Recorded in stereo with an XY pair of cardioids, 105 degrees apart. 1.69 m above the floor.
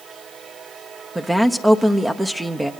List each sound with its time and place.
1.1 s a woman speaking: 15° right, 1.0 m